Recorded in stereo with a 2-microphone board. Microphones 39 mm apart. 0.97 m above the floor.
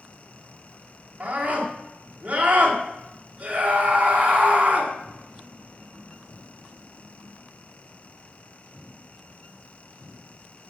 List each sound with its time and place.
1.2 s a scream: 35° right (ahead or behind), 3 m